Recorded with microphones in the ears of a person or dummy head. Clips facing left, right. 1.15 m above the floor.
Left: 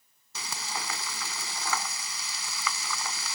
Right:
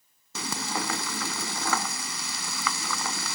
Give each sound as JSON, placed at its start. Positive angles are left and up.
{"t": 0.3, "sound": "frying", "side_deg": -40}